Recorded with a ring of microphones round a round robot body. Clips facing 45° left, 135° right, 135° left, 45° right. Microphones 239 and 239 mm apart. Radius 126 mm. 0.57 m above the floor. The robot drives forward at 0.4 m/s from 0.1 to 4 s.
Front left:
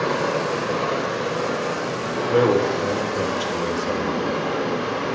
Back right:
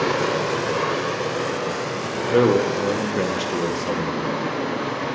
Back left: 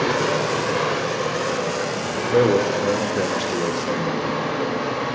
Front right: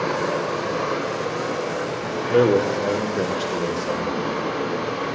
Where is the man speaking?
100° right, 0.7 m; by 4.4 s 160° right, 1.0 m.